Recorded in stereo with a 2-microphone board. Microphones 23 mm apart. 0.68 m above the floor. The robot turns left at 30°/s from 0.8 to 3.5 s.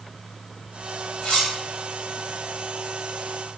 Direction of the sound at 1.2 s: 60° left (ahead or behind).